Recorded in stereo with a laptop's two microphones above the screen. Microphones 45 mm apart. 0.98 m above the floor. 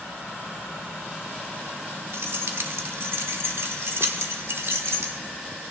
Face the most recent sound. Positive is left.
turn(degrees=-65)  # may be behind; listen again after turning